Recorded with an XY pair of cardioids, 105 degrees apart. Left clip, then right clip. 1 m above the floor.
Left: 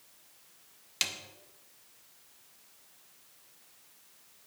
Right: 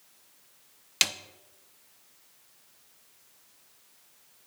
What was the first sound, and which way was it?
A snare drum, 50° right.